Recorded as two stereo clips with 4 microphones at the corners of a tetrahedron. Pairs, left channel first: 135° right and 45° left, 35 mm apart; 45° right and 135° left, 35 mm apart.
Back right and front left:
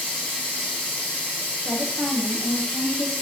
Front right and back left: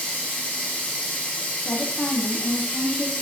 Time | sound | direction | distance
0.0 | running water | 100° right | 3 m
1.6 | a woman speaking | 100° right | 1.0 m